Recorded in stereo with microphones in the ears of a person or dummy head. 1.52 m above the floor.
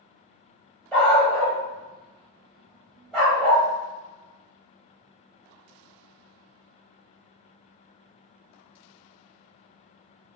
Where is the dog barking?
10° left (ahead or behind), 1.4 m.